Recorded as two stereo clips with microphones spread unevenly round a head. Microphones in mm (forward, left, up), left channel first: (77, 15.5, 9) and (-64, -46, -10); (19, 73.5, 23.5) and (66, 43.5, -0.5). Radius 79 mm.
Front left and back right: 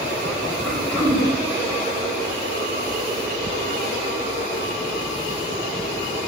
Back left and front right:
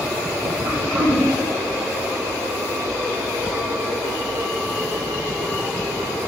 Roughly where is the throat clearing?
Ahead right.